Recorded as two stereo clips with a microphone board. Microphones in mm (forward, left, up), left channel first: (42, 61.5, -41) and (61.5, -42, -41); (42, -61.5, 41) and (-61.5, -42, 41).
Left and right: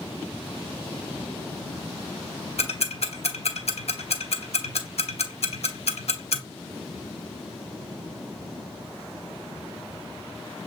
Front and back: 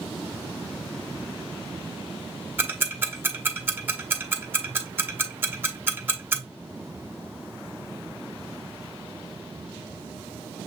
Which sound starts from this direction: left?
Ticking, at 2.6 s.